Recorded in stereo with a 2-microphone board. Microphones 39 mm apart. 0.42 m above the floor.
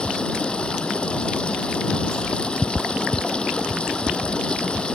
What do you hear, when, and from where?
0.0 s running water: 25° left (ahead or behind)